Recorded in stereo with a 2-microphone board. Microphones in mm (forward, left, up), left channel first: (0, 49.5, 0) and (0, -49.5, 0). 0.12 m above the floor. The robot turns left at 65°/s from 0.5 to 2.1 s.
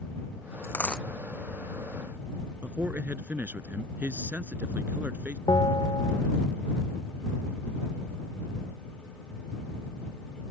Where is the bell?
50° left (ahead or behind).